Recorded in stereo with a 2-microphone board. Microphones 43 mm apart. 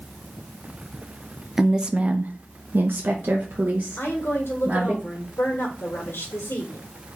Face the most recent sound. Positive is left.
turn(degrees=80)